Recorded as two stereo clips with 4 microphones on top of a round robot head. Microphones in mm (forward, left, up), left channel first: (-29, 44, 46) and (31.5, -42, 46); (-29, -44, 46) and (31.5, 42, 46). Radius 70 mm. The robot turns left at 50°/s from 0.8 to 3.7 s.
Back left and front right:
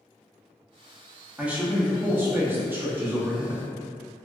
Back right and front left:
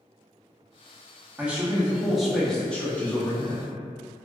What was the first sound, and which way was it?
A man speaking, 5° left.